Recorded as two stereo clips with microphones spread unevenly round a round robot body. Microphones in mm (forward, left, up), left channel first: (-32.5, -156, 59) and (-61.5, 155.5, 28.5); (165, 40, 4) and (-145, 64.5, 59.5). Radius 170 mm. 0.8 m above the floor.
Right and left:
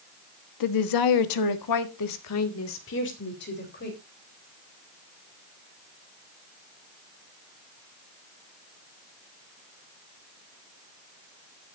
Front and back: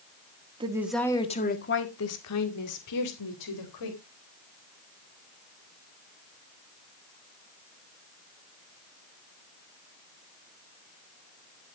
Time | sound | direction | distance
0.6 | a woman speaking | 105° right | 1.5 m